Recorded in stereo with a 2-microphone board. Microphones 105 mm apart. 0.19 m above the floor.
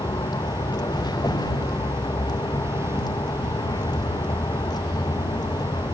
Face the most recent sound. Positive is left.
turn(degrees=45)  # may be behind; listen again after turning